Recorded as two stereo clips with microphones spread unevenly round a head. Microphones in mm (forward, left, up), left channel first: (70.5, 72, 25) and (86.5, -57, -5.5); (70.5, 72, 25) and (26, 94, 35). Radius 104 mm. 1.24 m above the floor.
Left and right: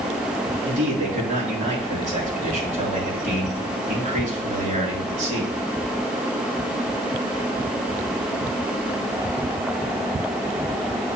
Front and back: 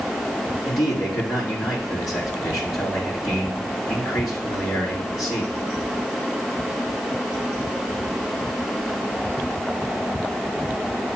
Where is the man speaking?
65° right, 3.5 m.